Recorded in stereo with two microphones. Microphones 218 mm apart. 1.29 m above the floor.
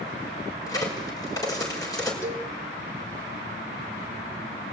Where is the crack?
15° left (ahead or behind), 6 m.